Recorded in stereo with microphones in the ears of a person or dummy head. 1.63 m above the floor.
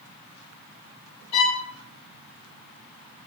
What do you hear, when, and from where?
1.3 s a violin: 30° left (ahead or behind), 1.4 m